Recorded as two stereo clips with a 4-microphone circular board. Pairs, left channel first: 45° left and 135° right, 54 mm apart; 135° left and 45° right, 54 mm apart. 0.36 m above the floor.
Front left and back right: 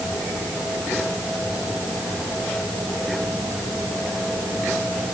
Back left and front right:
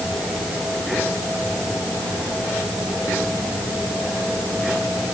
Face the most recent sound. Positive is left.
No sound to turn to.